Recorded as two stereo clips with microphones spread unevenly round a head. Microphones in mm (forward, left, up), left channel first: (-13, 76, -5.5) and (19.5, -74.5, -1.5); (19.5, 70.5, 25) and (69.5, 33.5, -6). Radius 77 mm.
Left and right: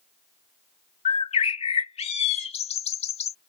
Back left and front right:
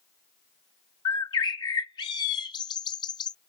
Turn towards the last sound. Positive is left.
turn(degrees=155)